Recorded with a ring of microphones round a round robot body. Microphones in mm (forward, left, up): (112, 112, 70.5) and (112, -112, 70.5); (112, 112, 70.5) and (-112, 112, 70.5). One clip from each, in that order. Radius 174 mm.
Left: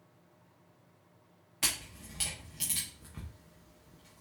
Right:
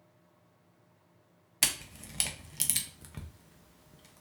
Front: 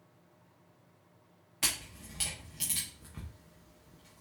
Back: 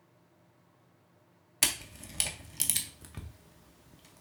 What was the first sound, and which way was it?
A camera shutter, 135° right.